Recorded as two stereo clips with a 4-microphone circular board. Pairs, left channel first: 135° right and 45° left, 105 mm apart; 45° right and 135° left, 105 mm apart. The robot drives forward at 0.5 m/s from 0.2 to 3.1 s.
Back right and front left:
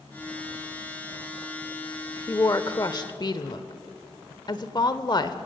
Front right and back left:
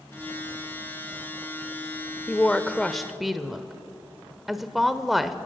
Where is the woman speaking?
105° right, 0.9 m; by 5.3 s 135° right, 1.1 m.